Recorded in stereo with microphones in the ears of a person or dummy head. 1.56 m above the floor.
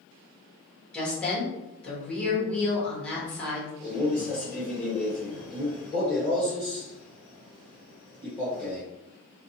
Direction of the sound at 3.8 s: 10° left (ahead or behind).